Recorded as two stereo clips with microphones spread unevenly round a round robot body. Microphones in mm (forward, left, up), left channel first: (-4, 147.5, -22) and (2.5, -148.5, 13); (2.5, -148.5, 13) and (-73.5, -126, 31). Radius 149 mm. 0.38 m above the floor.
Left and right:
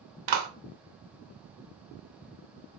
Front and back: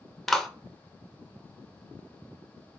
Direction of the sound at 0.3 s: 95° right.